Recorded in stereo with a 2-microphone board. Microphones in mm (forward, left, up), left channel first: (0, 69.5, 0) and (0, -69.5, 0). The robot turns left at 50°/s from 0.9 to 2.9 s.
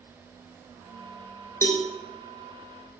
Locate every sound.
1.6 s a cowbell: 20° left (ahead or behind), 0.8 m; by 1.8 s 10° left (ahead or behind), 0.8 m